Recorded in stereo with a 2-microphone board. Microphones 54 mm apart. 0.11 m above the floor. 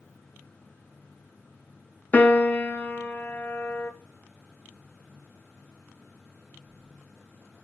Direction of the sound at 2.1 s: 30° left (ahead or behind).